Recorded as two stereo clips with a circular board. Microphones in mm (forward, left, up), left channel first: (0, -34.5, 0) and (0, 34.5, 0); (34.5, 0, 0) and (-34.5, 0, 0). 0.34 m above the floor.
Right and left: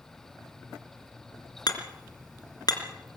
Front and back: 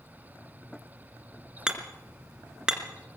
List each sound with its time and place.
1.7 s hammering: 100° right, 2.5 m